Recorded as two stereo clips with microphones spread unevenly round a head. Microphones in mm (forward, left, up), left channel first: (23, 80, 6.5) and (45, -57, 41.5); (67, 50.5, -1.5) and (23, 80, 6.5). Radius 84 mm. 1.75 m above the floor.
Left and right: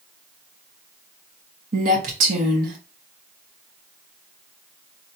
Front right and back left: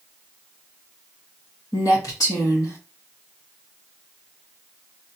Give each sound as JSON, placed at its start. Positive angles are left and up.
{"t": 1.7, "sound": "a woman speaking", "azimuth_deg": -75, "distance_m": 1.2}